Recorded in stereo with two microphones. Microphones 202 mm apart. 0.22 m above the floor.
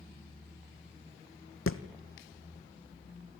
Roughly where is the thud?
Left.